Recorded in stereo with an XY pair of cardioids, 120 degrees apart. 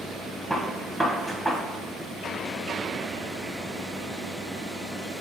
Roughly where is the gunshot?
Ahead.